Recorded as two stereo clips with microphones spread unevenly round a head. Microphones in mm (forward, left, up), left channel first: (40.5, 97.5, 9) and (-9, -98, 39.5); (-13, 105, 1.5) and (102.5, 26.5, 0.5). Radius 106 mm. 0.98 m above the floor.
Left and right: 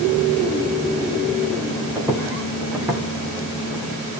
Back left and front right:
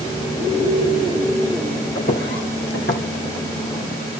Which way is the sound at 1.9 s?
Straight behind.